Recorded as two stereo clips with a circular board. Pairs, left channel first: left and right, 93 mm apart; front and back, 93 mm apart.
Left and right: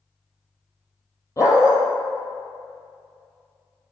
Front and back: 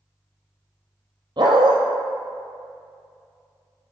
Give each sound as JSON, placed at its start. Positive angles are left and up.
{"t": 1.4, "sound": "a dog barking", "azimuth_deg": 145, "distance_m": 1.2}